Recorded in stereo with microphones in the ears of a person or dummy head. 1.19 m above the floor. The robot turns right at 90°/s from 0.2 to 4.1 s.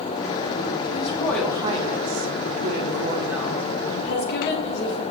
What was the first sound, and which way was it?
A woman speaking, 135° left.